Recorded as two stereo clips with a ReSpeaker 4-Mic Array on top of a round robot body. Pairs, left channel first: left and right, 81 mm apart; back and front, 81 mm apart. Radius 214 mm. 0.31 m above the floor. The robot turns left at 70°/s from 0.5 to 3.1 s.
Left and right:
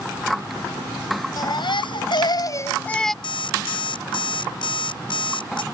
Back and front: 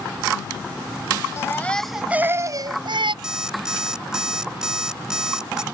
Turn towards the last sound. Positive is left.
turn(degrees=80)